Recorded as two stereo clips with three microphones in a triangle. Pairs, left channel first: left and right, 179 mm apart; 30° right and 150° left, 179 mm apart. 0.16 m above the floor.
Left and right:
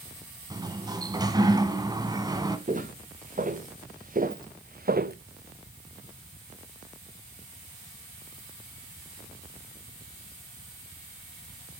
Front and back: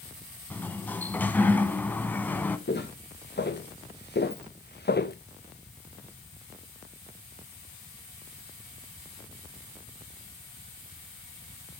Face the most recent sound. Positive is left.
turn(degrees=-55)